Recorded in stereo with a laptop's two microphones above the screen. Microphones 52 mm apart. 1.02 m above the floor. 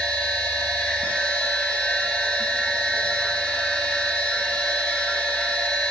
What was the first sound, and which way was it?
A machine running, 15° left (ahead or behind).